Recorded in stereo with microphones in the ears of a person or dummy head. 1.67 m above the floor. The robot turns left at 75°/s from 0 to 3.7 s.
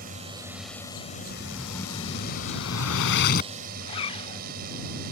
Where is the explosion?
150° right; by 3.5 s 40° left.